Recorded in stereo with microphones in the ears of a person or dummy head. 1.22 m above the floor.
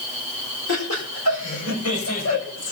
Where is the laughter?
85° left, 6.5 m; by 2.7 s 80° left, 7 m.